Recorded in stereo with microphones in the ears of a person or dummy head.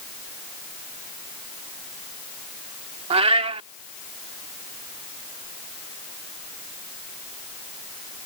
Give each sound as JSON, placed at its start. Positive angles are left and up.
{"t": 3.1, "sound": "a cat meowing", "side_deg": -25}